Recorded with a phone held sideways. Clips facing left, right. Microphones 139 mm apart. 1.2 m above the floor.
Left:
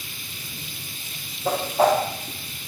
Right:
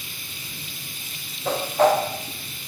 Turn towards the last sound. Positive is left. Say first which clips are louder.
# right 1 dB
turn(degrees=10)  # may be behind; listen again after turning